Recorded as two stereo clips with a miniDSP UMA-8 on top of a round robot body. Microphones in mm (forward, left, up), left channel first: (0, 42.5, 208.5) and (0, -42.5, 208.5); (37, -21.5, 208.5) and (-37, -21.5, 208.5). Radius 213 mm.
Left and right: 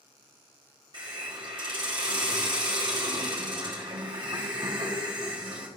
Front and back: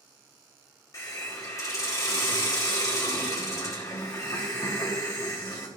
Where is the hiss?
50° right, 1.2 m.